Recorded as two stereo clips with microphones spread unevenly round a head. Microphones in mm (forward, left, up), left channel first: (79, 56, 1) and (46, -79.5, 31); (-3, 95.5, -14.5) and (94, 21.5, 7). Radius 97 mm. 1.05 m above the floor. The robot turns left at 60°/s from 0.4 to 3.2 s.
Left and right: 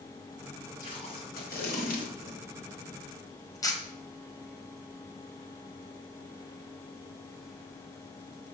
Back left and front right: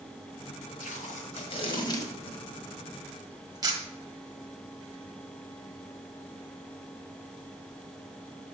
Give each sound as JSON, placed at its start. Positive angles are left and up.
{"t": 0.8, "sound": "tape being pulled", "azimuth_deg": 155, "distance_m": 1.5}